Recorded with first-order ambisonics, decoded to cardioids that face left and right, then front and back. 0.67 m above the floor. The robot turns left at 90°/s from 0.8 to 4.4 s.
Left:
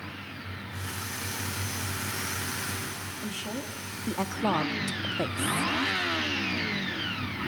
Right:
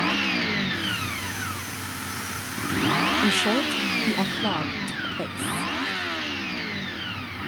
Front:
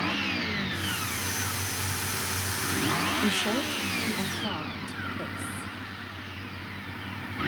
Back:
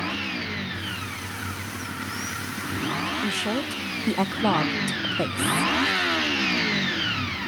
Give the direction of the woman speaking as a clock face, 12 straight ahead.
3 o'clock.